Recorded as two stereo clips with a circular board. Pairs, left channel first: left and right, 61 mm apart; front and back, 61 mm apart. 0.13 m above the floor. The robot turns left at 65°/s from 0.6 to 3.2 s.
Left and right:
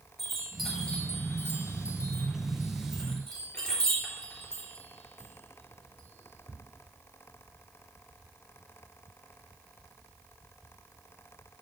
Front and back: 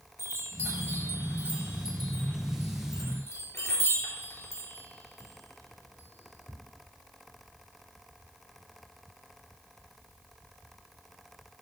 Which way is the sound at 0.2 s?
Straight behind.